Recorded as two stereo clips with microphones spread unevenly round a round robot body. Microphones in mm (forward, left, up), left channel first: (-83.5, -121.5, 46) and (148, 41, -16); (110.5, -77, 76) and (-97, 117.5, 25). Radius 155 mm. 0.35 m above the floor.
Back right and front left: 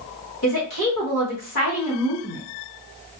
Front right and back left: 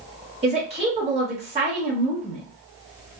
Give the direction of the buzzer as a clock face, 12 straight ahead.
I don't hear a buzzer.